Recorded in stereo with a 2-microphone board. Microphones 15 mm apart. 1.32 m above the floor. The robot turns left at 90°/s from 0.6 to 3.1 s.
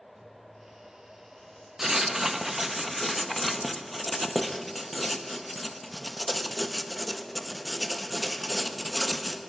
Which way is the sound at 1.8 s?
25° right (ahead or behind).